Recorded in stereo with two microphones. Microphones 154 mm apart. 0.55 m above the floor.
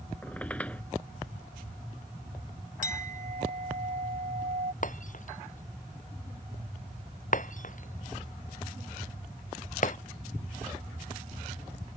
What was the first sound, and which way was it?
A squeak, 10° left (ahead or behind).